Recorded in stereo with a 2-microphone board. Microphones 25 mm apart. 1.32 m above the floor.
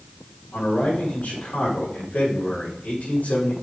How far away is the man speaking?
About 4 m.